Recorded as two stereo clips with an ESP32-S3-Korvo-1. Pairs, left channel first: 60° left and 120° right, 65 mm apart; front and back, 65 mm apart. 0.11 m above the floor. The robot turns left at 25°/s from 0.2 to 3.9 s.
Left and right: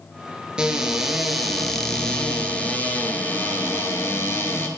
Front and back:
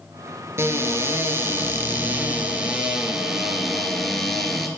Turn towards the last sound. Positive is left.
turn(degrees=85)